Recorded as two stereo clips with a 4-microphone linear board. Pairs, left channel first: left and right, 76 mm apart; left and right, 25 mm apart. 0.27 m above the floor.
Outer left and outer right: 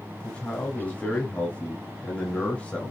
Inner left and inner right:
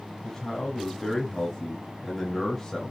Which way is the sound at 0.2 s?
20° left (ahead or behind).